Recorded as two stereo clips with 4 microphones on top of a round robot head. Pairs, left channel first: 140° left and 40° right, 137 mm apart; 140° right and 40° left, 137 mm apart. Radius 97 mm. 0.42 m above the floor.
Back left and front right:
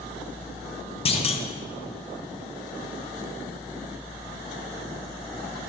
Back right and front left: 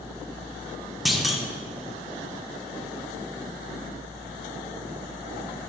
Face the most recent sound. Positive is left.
turn(degrees=125)